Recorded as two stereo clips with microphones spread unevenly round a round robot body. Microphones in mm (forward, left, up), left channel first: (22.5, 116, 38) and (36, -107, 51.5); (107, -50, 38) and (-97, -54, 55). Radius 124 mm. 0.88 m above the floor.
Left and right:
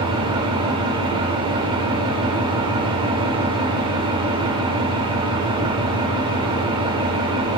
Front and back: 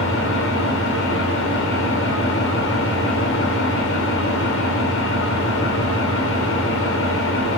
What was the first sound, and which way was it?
An engine running, 20° right.